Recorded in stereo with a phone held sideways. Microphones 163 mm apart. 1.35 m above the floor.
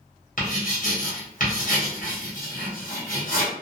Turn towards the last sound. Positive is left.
turn(degrees=60)  # may be behind; listen again after turning